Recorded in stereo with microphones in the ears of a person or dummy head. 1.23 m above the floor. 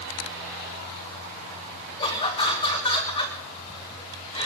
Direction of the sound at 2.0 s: 30° left (ahead or behind).